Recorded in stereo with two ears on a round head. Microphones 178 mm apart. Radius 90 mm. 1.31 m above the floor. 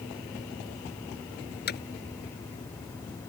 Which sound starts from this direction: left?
Hammering, at 1.7 s.